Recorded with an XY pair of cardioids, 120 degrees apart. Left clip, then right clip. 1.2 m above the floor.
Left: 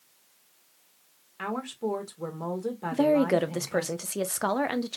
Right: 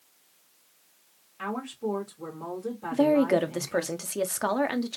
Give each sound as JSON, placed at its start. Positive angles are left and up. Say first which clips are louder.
{"t": 1.4, "sound": "a woman speaking", "louder": "left 1 dB", "azimuth_deg": 35, "distance_m": 1.7}
{"t": 2.9, "sound": "a woman speaking", "louder": "right 1 dB", "azimuth_deg": 5, "distance_m": 0.6}